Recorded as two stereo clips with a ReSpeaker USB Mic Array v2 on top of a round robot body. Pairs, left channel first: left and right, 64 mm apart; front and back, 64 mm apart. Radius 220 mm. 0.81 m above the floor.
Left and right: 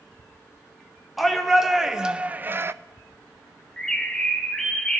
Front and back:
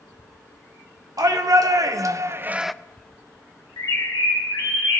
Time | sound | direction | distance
1.2 | a shout | 175° right | 1.4 m
3.8 | a bird | 10° left | 0.6 m